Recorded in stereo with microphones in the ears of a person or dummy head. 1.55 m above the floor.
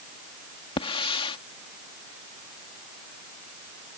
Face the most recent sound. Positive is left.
turn(degrees=35)  # may be behind; listen again after turning